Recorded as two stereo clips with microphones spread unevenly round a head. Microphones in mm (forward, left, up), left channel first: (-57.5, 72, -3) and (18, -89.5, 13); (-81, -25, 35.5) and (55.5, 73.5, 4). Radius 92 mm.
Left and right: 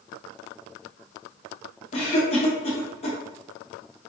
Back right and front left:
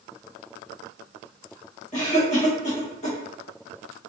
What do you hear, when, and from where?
1.9 s a cough: 170° left, 1.8 m